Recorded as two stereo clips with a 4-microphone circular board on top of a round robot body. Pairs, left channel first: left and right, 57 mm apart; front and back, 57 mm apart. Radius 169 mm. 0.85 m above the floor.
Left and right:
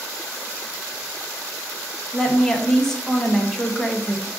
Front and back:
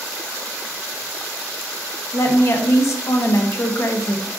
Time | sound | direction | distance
2.1 | a woman speaking | 10° left | 0.9 m